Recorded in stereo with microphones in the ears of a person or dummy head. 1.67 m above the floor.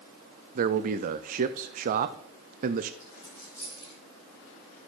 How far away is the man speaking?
About 0.5 m.